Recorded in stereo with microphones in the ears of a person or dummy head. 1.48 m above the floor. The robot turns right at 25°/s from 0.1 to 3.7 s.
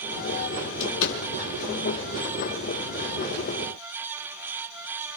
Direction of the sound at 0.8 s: 65° left (ahead or behind).